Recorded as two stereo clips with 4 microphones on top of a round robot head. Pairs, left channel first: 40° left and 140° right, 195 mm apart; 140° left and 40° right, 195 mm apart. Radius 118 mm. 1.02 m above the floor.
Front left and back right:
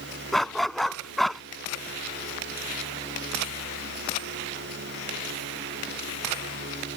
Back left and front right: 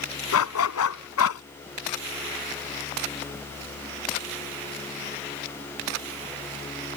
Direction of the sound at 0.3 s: 130° left.